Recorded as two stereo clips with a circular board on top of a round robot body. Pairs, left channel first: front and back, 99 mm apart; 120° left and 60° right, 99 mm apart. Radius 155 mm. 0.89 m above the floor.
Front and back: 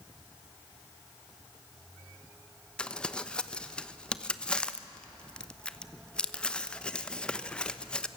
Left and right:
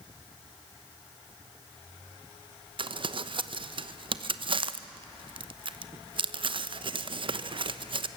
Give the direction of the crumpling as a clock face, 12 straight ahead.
3 o'clock.